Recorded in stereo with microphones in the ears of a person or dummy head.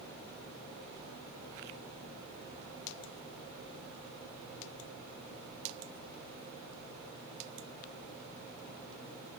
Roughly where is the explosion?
I don't hear an explosion.